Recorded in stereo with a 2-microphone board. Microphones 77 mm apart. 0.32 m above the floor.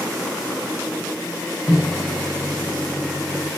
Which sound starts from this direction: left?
A microwave, at 1.7 s.